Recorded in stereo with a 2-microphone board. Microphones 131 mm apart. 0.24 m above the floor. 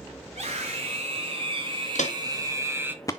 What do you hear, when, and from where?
0.3 s a scream: 50° right (ahead or behind), 4 m; by 3.0 s 10° right (ahead or behind), 1.7 m
1.9 s footsteps: 70° left (ahead or behind), 1.7 m; by 3.1 s 25° left (ahead or behind), 0.7 m